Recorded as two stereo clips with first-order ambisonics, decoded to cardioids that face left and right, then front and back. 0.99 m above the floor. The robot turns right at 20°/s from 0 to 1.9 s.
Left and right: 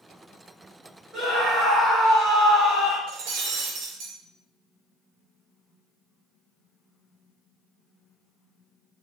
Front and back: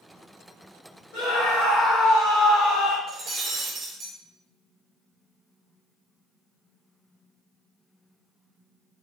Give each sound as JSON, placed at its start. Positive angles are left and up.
{"t": 1.1, "sound": "a scream", "azimuth_deg": 10, "distance_m": 1.2}
{"t": 3.1, "sound": "breaking glass", "azimuth_deg": -110, "distance_m": 0.6}